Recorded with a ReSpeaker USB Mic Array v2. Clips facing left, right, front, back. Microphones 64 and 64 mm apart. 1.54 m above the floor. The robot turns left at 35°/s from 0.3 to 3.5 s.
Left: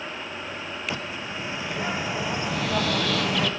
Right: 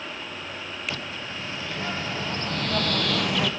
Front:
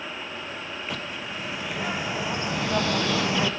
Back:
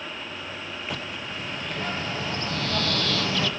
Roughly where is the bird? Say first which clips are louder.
Left 2 dB, even; left.